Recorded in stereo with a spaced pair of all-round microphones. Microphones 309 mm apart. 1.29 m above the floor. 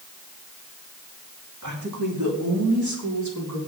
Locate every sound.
1.6 s a woman speaking: 70° right (ahead or behind), 2.5 m; by 3.6 s 65° right (ahead or behind), 4 m